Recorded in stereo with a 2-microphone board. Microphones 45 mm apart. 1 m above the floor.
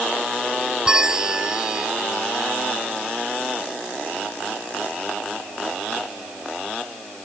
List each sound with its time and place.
0.8 s a bell: 15° right (ahead or behind)